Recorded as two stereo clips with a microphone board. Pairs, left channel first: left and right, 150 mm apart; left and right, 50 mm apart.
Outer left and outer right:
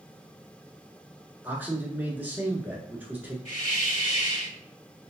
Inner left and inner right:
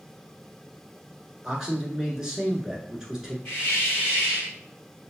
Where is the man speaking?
15° right (ahead or behind), 1.1 m.